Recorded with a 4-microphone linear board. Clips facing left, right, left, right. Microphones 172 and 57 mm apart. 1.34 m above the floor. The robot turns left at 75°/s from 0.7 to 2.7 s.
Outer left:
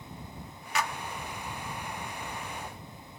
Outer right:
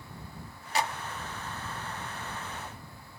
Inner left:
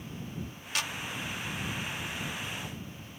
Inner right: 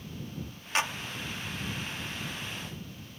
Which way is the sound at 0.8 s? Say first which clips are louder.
Outer right 2 dB, inner right 5 dB; 35° right (ahead or behind).